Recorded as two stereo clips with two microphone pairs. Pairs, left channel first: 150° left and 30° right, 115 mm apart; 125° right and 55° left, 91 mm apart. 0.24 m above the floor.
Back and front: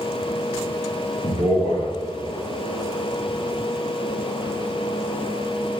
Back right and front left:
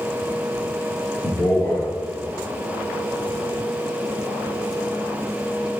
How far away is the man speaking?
About 3 m.